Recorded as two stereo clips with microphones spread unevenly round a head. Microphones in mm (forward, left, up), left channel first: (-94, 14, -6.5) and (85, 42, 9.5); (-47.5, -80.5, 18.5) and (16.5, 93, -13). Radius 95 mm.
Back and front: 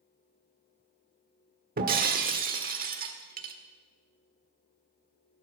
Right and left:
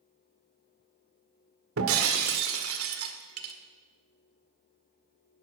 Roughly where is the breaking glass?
Ahead left.